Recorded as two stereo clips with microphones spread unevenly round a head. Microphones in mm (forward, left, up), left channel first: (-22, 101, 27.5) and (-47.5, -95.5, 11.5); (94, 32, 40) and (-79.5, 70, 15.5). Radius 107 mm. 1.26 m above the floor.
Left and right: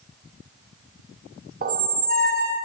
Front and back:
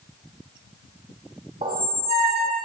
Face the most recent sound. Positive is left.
turn(degrees=-130)